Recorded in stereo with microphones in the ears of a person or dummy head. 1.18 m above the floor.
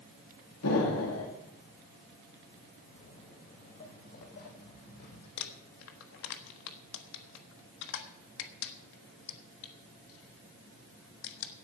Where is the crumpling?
70° left (ahead or behind), 1.3 m.